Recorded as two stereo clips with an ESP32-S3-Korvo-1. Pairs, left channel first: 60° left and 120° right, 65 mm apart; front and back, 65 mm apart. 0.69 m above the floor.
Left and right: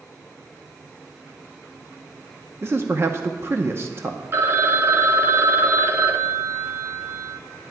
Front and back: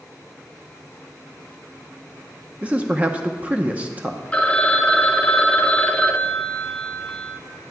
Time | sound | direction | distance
2.6 | a man speaking | 125° right | 0.7 m
4.3 | a phone ringing | 70° right | 0.7 m